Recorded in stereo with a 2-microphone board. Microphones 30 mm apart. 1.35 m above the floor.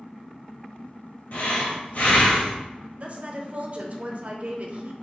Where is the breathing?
55° left (ahead or behind), 0.7 m.